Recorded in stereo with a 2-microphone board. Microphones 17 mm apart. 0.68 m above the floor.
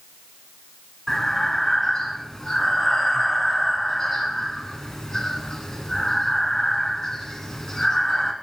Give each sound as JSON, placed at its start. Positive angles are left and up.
{"t": 1.1, "sound": "breathing", "side_deg": 40, "distance_m": 1.1}